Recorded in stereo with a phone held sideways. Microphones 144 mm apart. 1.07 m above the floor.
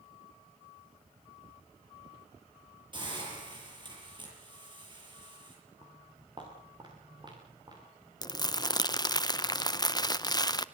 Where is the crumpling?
25° left (ahead or behind), 0.6 m.